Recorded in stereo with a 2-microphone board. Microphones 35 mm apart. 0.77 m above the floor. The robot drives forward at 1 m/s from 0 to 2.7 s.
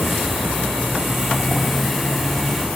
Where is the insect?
75° right (ahead or behind), 1.3 m; by 2.8 s 25° right (ahead or behind), 2.5 m.